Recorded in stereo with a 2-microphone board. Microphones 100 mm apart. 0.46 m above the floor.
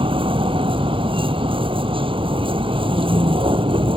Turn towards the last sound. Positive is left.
turn(degrees=-60)  # may be behind; listen again after turning